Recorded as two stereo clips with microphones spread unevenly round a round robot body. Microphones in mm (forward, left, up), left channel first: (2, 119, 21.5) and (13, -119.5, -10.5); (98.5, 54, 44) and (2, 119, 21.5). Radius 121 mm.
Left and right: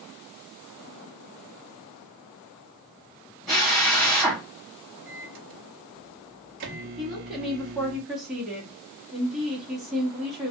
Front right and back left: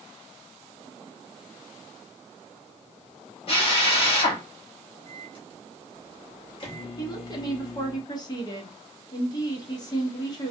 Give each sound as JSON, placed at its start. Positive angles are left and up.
{"t": 3.5, "sound": "a drill", "azimuth_deg": -5, "distance_m": 1.7}
{"t": 5.1, "sound": "a microwave", "azimuth_deg": -80, "distance_m": 0.8}
{"t": 7.0, "sound": "a woman speaking", "azimuth_deg": -20, "distance_m": 1.1}